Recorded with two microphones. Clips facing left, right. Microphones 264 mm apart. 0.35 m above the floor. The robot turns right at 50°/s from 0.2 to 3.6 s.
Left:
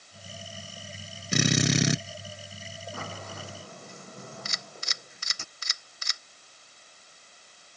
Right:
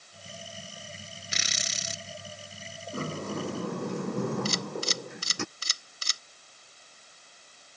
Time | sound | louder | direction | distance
1.3 | a drill | left 21 dB | 55° left | ?
2.9 | a sliding door | right 11 dB | 145° right | ?
4.5 | a camera shutter | right 15 dB | 35° right (ahead or behind) | ?